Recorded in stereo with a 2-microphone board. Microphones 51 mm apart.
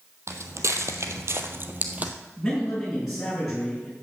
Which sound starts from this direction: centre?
A man speaking, at 2.4 s.